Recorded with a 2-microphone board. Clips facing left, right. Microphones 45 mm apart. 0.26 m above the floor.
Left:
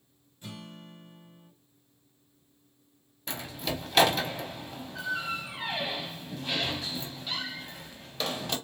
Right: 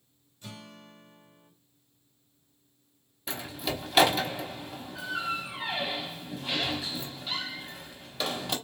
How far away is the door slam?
About 0.9 m.